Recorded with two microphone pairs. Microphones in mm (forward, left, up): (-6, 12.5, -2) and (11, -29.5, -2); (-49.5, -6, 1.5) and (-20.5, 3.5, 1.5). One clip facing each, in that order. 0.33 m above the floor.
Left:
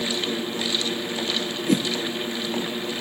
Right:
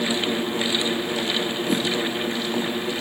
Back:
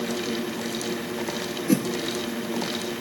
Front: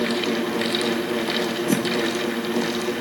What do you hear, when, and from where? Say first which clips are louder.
1.7 s a whoosh: left 4 dB, back 2 dB; 130° left, 3 m